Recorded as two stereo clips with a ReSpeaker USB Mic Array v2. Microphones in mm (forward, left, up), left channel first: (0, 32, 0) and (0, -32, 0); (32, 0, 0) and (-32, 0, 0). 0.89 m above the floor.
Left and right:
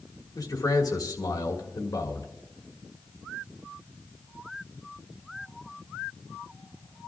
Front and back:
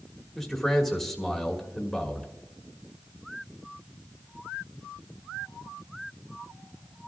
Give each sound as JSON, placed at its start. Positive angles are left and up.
{"t": 0.3, "sound": "a man speaking", "azimuth_deg": 90, "distance_m": 1.9}